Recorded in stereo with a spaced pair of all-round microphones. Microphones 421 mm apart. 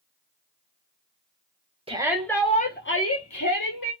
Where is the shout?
15° right (ahead or behind), 0.8 m; by 3.9 s 55° left (ahead or behind), 1.2 m.